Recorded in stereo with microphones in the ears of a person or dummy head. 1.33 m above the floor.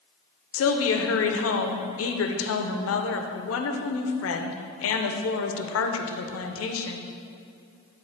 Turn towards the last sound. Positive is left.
turn(degrees=65)  # may be behind; listen again after turning